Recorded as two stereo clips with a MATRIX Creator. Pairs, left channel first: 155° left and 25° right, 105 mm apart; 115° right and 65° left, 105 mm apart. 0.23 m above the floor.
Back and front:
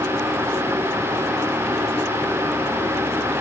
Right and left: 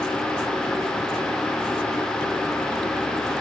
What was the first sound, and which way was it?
Only background noise.